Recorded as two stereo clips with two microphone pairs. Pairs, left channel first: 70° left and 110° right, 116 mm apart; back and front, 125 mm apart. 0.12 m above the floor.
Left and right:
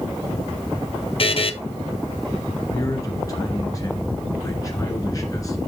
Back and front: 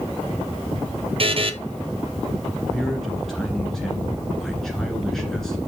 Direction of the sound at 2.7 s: 95° left.